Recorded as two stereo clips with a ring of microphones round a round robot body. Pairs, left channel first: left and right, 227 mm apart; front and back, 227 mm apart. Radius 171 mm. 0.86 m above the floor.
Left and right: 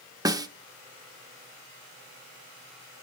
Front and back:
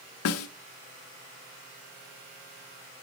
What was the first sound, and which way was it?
A snare drum, 15° right.